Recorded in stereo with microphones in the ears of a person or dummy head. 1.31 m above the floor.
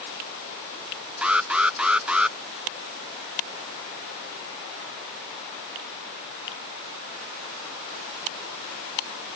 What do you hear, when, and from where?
1.2 s an alarm: 5° right (ahead or behind)